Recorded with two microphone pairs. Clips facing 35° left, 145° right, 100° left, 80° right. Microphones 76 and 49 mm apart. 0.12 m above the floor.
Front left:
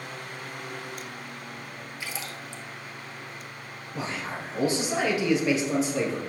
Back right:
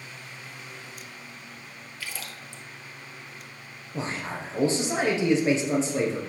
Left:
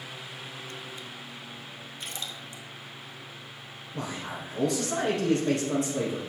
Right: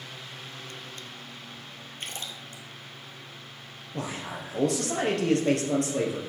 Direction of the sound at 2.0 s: 35° right.